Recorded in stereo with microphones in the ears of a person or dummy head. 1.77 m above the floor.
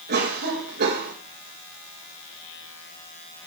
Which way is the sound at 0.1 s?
60° right (ahead or behind).